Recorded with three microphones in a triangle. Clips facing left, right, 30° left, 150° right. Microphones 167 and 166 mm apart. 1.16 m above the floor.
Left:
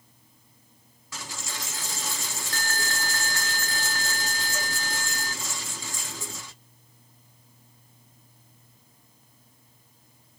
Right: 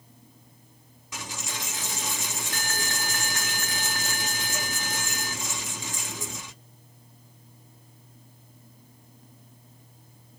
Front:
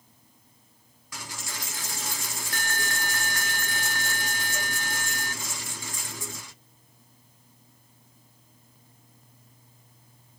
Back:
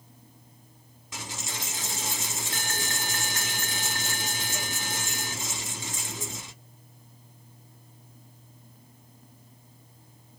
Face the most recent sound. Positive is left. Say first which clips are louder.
# right 2 dB, back 2 dB
turn(degrees=-125)